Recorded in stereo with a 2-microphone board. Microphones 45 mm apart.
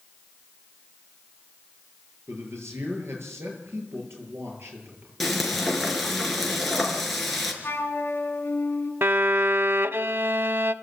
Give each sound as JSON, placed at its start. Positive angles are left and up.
{"t": 2.3, "sound": "a man speaking", "side_deg": -70, "distance_m": 8.0}
{"t": 5.2, "sound": "frying", "side_deg": 0, "distance_m": 4.0}
{"t": 7.6, "sound": "a flute", "side_deg": 55, "distance_m": 3.0}
{"t": 9.0, "sound": "a violin", "side_deg": -60, "distance_m": 0.6}